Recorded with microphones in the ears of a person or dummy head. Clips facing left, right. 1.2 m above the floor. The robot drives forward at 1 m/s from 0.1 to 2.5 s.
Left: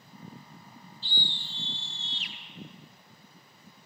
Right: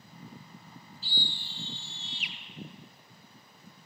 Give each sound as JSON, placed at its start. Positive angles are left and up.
{"t": 1.0, "sound": "a scream", "side_deg": -15, "distance_m": 4.0}